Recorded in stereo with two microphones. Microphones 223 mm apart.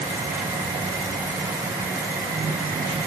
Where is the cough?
I don't hear a cough.